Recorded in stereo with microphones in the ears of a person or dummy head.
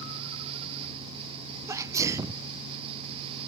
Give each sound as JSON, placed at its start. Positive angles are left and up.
{"t": 1.7, "sound": "a sneeze", "side_deg": -20, "distance_m": 0.7}